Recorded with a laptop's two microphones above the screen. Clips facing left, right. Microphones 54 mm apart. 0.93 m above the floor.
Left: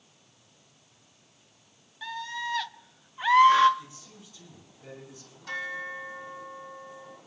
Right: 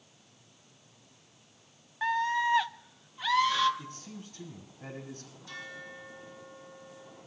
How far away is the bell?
About 4.5 m.